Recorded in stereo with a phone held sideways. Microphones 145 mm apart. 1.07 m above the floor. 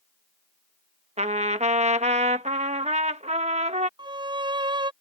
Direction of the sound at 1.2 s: 45° right (ahead or behind).